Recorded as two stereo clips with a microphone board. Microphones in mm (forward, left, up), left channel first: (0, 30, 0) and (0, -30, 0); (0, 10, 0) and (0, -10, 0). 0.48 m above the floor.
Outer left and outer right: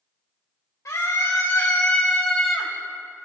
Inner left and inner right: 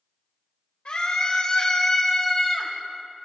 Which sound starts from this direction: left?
A scream, at 0.8 s.